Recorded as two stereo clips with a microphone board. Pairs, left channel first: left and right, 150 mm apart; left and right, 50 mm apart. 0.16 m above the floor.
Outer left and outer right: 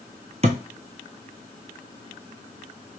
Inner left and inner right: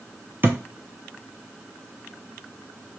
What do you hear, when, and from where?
0.4 s a thud: 45° right (ahead or behind), 0.7 m